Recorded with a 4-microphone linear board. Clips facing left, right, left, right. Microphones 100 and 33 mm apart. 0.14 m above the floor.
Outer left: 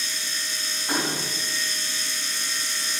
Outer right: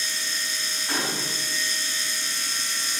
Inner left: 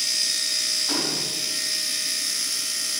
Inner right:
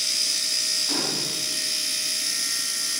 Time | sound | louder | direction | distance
0.9 | a gunshot | outer left 2 dB, inner left 1 dB | 20° left (ahead or behind) | 7 m